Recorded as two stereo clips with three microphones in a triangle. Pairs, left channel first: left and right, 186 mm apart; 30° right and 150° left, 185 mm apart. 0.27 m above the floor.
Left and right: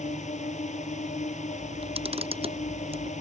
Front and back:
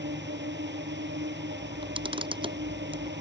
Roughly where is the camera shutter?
Behind right.